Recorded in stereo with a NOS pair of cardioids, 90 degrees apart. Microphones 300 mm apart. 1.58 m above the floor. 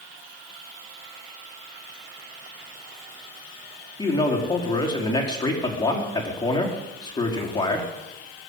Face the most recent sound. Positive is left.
turn(degrees=15)